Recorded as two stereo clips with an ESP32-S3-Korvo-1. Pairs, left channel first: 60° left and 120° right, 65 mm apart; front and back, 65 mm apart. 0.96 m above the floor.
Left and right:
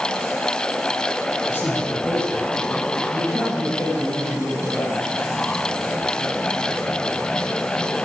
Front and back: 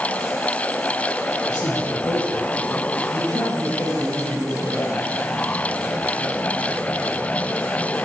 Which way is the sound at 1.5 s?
5° left.